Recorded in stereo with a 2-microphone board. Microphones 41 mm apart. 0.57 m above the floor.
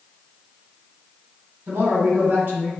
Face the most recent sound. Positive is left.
turn(degrees=-50)  # may be behind; listen again after turning